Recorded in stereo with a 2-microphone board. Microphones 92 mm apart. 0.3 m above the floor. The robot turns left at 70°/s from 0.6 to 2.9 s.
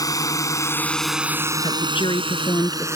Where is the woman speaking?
105° left; by 2.9 s 20° left.